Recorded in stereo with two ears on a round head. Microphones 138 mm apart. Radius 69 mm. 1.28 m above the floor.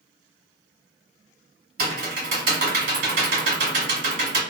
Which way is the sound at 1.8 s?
55° right (ahead or behind).